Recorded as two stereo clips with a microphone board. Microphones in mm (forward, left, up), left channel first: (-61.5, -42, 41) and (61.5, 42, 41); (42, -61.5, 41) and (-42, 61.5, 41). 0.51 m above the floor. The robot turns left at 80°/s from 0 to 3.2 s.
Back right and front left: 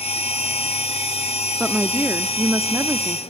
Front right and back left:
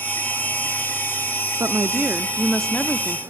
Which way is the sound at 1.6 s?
110° left.